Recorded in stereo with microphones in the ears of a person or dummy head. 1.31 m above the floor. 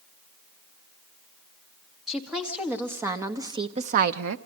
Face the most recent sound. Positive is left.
turn(degrees=-75)  # may be behind; listen again after turning